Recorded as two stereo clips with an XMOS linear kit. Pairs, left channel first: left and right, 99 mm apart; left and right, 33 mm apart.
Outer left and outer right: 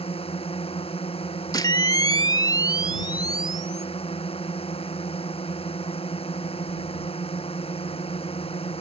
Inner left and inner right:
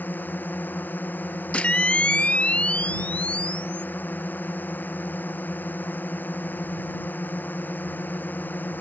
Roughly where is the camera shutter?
Left.